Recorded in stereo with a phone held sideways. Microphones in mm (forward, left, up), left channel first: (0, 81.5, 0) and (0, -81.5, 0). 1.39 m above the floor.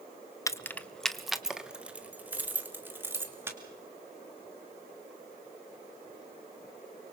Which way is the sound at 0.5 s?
20° left (ahead or behind).